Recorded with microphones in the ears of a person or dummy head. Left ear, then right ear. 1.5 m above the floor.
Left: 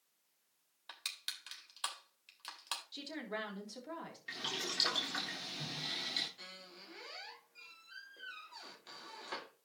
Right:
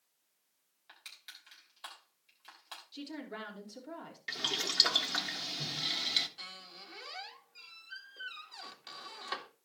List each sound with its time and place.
0.9 s crushing: 45° left (ahead or behind), 3 m
2.9 s a woman speaking: 10° left (ahead or behind), 3 m
4.3 s boiling: 35° right (ahead or behind), 1.5 m
6.4 s a squeak: 35° right (ahead or behind), 1.6 m